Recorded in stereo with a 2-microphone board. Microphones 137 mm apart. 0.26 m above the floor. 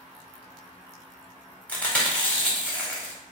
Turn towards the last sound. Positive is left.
turn(degrees=10)  # may be behind; listen again after turning